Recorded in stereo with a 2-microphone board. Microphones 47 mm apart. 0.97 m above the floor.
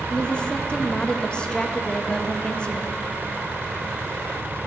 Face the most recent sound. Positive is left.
turn(degrees=20)  # may be behind; listen again after turning